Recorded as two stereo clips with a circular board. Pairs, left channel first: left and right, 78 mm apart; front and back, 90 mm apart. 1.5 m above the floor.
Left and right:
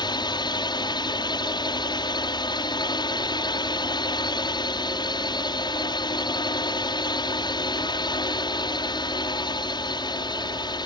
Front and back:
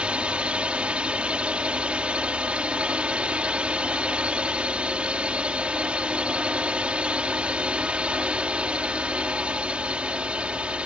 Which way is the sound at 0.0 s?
100° left.